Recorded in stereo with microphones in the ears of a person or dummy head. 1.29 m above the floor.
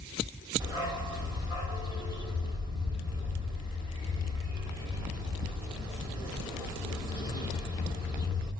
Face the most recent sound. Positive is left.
turn(degrees=-10)  # may be behind; listen again after turning